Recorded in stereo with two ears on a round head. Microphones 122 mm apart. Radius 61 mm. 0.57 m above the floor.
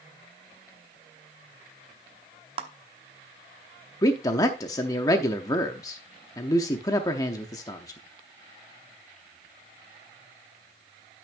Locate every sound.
2.6 s a clap: 40° right (ahead or behind), 1.0 m
4.0 s a man speaking: 25° left (ahead or behind), 0.7 m